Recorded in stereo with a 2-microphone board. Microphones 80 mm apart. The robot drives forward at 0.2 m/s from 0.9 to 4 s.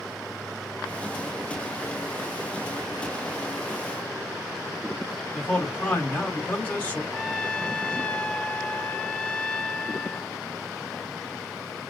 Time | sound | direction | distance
5.3 | a man speaking | 20° left (ahead or behind) | 1.2 m
7.1 | a trumpet | 10° left (ahead or behind) | 0.5 m